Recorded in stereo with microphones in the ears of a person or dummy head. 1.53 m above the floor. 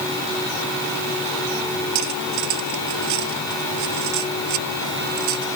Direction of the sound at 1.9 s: 75° right (ahead or behind).